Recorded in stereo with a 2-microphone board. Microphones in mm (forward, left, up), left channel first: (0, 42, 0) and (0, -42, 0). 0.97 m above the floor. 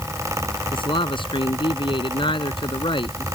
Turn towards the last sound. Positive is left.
turn(degrees=85)